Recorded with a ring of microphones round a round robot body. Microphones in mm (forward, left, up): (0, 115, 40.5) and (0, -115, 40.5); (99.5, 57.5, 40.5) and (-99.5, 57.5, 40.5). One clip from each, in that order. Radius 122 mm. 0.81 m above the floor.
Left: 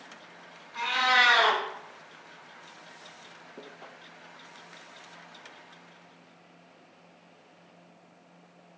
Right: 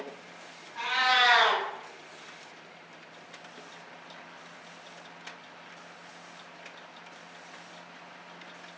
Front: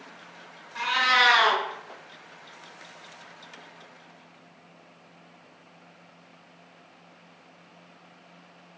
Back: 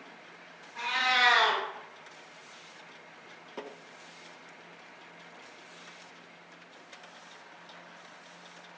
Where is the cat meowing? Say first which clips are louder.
Left 1 dB, front 5 dB; 30° left, 1.8 m.